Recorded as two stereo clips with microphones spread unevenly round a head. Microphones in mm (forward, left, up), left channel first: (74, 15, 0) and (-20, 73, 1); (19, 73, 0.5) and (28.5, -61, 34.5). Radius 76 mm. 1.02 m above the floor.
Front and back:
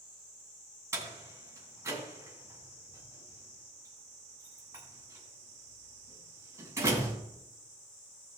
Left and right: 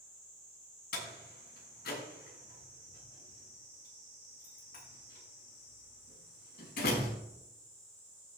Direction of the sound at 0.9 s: 85° left.